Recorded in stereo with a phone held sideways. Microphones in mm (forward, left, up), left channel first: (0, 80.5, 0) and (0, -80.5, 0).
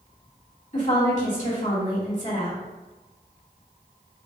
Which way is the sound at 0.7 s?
50° left (ahead or behind).